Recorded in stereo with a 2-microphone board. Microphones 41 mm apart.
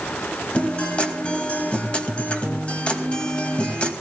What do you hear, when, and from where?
0.5 s a guitar: 30° left (ahead or behind), 2.5 m